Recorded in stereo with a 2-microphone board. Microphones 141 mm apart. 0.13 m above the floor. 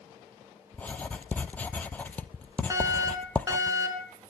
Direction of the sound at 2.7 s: 20° right (ahead or behind).